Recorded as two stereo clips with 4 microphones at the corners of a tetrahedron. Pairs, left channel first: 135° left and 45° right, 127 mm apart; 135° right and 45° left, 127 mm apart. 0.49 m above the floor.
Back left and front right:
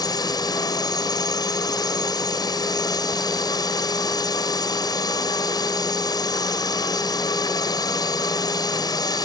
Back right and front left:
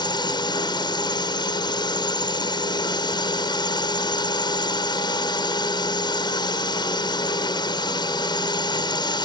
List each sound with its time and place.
0.0 s a drone: straight behind